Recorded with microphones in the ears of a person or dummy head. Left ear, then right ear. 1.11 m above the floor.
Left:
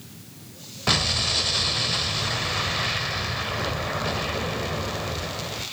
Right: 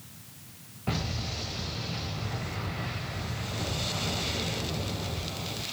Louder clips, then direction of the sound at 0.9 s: Left 13 dB; 60° left (ahead or behind).